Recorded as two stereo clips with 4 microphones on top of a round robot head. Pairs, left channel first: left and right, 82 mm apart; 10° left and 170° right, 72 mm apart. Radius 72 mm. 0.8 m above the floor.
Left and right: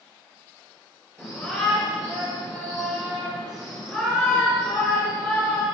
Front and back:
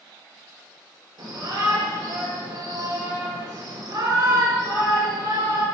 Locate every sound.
1.2 s a shout: straight behind, 3.5 m